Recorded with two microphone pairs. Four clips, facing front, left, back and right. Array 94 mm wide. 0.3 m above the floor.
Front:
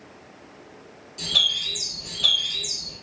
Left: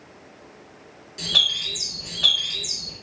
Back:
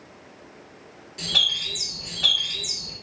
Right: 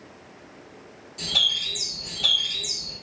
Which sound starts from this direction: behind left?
A bird, at 1.2 s.